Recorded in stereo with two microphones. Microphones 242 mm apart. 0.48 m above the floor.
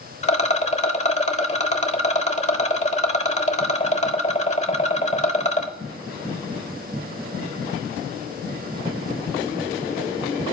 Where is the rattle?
30° left (ahead or behind), 0.8 m.